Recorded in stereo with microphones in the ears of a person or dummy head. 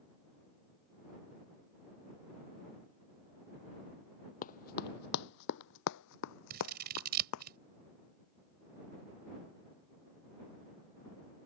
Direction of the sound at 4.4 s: 25° left (ahead or behind).